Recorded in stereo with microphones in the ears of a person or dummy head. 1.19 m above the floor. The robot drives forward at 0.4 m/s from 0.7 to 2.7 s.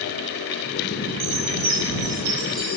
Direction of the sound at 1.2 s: 80° right.